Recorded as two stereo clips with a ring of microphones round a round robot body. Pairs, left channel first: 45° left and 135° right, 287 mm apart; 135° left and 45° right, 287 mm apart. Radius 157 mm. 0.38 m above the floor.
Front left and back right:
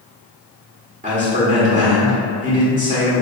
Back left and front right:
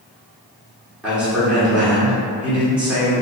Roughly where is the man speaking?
Behind right.